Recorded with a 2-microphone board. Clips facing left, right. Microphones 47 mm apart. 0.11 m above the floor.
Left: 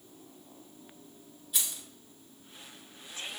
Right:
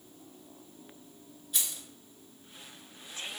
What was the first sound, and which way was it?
Keys jangling, centre (ahead or behind).